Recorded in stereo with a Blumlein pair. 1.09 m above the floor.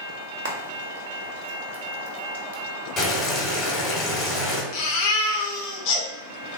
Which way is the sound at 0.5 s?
60° right.